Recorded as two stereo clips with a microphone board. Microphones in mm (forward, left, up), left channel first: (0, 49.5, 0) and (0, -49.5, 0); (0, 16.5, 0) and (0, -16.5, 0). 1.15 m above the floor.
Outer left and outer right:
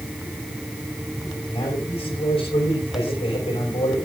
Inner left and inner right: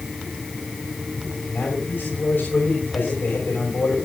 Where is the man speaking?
80° left, 5.5 m.